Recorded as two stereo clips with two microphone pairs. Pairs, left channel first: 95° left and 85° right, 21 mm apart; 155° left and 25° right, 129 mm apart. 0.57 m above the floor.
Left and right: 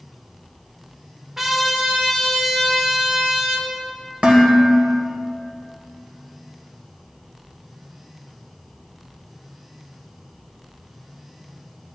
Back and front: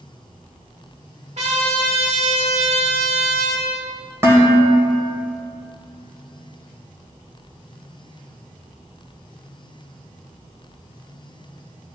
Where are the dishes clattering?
90° right, 1.9 m.